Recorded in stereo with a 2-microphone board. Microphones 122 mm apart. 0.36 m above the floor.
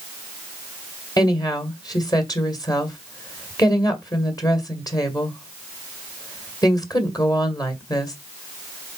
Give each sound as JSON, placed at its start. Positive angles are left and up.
{"t": 1.2, "sound": "a woman speaking", "side_deg": 30, "distance_m": 1.8}